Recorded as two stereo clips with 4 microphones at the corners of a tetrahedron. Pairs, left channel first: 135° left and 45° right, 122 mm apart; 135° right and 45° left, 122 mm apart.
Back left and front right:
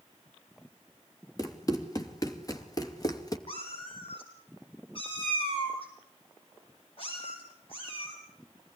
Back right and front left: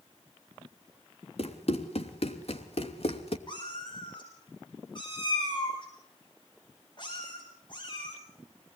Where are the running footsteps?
165° right, 3.5 m.